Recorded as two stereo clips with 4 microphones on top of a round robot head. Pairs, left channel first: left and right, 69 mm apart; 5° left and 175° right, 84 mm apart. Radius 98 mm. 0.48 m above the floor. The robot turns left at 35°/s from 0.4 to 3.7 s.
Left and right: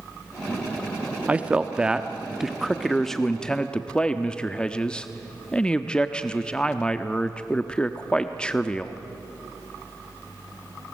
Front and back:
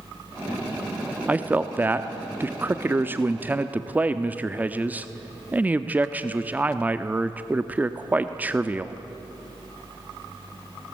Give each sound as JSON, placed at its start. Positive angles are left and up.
{"t": 1.3, "sound": "a man speaking", "azimuth_deg": -130, "distance_m": 0.9}